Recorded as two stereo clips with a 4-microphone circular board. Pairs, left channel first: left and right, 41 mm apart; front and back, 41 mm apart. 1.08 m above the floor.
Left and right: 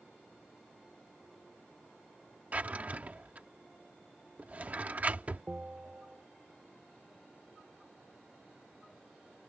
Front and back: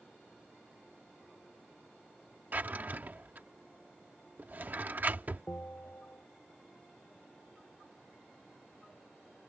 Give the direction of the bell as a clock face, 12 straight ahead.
1 o'clock.